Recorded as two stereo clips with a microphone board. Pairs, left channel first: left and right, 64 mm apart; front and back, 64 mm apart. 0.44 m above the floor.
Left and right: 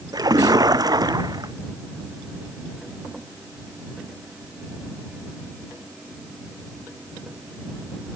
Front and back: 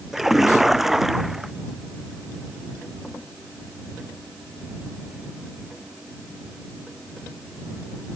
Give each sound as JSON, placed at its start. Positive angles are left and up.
{"t": 0.1, "sound": "a splash", "azimuth_deg": -95}